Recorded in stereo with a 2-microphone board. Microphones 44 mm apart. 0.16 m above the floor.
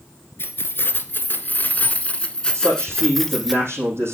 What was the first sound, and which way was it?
Keys jangling, 60° left (ahead or behind).